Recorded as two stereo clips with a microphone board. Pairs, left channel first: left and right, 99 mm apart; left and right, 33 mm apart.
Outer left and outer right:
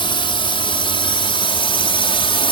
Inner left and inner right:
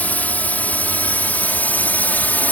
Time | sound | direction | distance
0.0 | a drone | 60° left (ahead or behind) | ?